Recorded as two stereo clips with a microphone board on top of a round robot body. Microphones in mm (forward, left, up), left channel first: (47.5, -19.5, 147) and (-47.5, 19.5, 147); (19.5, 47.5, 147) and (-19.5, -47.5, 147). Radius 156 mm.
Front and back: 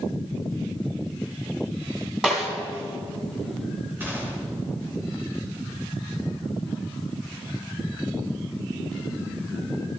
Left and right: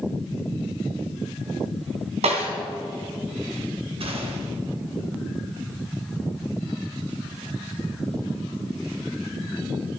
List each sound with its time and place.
2.2 s a snare drum: 120° right, 2 m
4.0 s a gunshot: 130° right, 2.5 m